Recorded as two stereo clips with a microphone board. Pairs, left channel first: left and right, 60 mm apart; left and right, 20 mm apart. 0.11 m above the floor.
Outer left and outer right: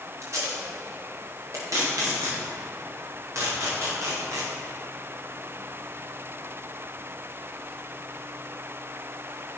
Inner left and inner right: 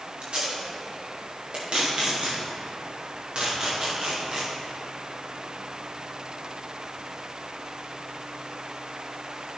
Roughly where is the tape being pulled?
Right.